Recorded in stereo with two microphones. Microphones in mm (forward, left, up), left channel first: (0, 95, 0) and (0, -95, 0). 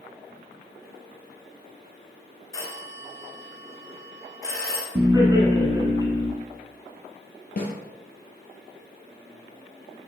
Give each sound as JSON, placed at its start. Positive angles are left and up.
{"t": 2.5, "sound": "a phone ringing", "side_deg": 15, "distance_m": 1.1}
{"t": 5.0, "sound": "laughter", "side_deg": -20, "distance_m": 1.1}
{"t": 7.6, "sound": "a snare drum", "side_deg": 55, "distance_m": 1.4}